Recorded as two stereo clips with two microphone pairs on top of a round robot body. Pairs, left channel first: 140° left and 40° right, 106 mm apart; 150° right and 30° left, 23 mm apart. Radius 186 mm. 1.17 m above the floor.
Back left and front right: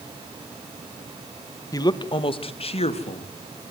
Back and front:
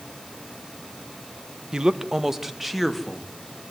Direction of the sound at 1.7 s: 85° left.